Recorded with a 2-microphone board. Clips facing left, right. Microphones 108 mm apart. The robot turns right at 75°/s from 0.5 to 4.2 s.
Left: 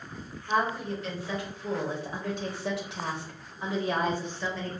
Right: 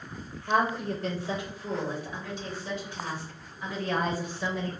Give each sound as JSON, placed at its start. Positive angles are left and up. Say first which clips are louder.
{"t": 0.5, "sound": "a woman speaking", "louder": "right 2 dB", "azimuth_deg": -85, "distance_m": 0.8}